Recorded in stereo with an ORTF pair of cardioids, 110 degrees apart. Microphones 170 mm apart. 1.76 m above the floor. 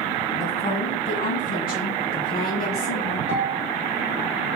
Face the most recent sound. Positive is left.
turn(degrees=60)